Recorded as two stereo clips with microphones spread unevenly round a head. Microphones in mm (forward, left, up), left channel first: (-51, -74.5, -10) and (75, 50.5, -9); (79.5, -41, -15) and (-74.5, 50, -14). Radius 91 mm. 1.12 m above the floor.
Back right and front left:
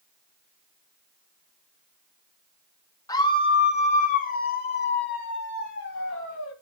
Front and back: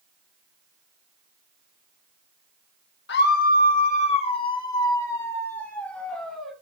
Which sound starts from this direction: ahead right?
A scream, at 3.1 s.